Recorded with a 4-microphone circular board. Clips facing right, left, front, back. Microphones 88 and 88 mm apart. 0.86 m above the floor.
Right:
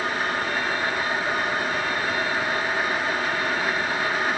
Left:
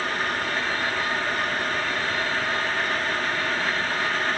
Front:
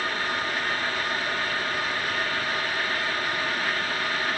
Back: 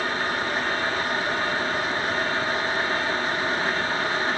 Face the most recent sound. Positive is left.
No sound to turn to.